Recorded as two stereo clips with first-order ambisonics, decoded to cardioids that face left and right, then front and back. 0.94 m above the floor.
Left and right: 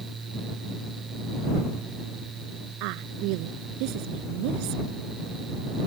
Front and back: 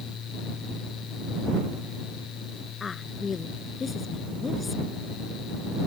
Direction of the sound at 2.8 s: 70° right.